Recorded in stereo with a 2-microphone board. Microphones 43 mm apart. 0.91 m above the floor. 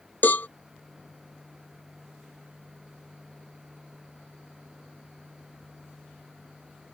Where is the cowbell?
50° left (ahead or behind).